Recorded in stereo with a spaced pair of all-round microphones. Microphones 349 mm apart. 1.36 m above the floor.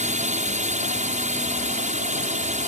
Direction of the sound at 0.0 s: 20° right (ahead or behind).